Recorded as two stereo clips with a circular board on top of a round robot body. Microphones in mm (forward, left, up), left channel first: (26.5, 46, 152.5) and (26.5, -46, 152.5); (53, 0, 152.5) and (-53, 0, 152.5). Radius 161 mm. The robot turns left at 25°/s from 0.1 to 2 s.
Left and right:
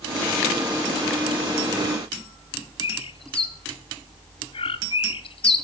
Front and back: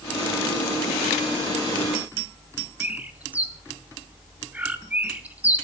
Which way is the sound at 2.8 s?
105° left.